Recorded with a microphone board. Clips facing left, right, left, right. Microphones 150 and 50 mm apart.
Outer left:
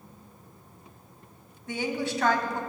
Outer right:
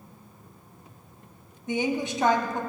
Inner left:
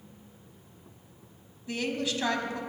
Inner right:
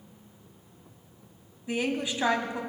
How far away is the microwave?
No microwave in this recording.